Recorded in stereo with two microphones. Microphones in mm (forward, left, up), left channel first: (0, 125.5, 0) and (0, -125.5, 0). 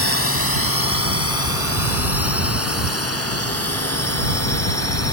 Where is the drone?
60° left (ahead or behind); by 5.1 s 75° left (ahead or behind).